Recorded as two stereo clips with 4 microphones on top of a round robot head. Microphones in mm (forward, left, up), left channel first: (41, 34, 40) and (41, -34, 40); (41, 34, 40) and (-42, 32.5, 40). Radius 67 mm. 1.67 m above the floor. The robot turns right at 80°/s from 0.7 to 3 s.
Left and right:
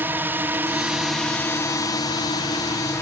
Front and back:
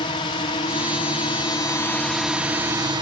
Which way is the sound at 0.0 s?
30° right.